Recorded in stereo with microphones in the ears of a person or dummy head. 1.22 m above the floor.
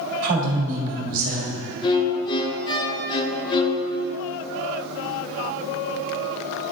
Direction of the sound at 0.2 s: 45° right (ahead or behind).